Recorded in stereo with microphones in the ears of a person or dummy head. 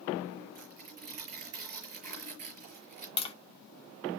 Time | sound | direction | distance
0.6 | tearing paper | 50° right (ahead or behind) | 6 m
3.2 | tapping | 25° left (ahead or behind) | 1.1 m